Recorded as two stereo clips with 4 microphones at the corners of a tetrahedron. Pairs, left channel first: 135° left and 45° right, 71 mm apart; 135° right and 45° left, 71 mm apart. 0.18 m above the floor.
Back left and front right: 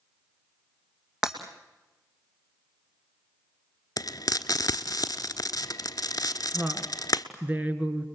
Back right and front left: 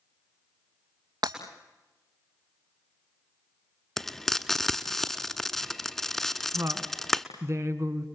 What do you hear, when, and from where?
1.2 s breaking glass: 35° left, 2.5 m
4.0 s frying: 140° left, 1.0 m
6.5 s a woman speaking: 20° left, 1.8 m